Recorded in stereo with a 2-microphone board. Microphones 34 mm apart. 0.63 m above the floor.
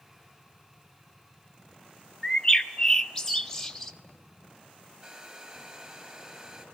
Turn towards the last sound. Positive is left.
turn(degrees=-25)  # may be behind; listen again after turning